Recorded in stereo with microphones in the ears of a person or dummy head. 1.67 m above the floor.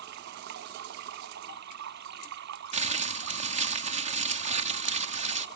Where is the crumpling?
40° right (ahead or behind).